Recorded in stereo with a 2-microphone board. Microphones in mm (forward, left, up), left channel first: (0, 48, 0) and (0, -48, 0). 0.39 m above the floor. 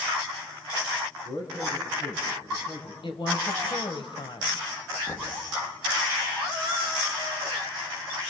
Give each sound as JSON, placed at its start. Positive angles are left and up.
{"t": 1.2, "sound": "a man speaking", "side_deg": 70, "distance_m": 4.5}
{"t": 3.0, "sound": "a woman speaking", "side_deg": 60, "distance_m": 2.0}
{"t": 5.1, "sound": "knocking", "side_deg": 50, "distance_m": 4.5}